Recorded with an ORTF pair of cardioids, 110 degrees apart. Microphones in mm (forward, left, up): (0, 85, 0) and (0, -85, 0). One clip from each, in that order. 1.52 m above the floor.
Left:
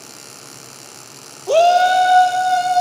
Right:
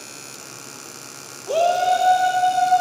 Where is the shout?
35° left, 0.8 m; by 2.8 s 70° left, 2 m.